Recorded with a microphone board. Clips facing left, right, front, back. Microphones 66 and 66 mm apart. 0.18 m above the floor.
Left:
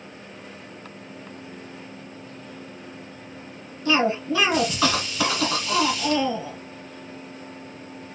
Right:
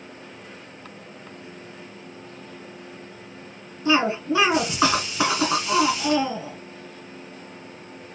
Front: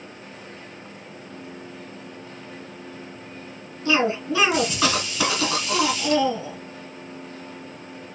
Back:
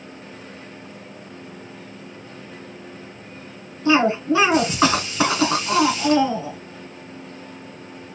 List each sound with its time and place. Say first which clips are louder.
3.9 s a cough: right 1 dB, back 5 dB; 145° right, 1.8 m